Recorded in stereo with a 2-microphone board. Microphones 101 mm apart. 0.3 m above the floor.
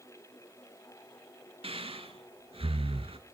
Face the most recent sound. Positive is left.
turn(degrees=-75)  # may be behind; listen again after turning